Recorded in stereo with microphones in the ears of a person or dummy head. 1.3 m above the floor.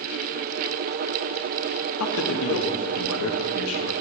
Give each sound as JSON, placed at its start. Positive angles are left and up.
{"t": 2.0, "sound": "a man speaking", "side_deg": 70, "distance_m": 1.6}